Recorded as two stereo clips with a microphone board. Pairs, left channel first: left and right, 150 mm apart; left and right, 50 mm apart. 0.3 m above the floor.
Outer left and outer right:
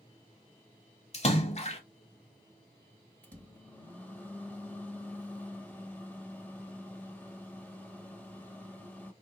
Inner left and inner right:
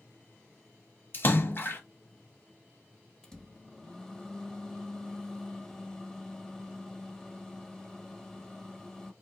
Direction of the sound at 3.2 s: 10° left (ahead or behind).